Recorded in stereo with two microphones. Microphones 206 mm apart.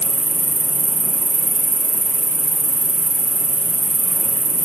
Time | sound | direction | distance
0.0 | an insect | 30° left (ahead or behind) | 2.5 m